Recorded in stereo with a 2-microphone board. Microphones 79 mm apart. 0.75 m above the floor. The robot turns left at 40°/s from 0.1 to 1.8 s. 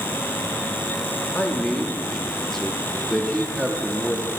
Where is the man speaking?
20° left (ahead or behind), 1.0 m; by 4.3 s 5° left (ahead or behind), 1.0 m.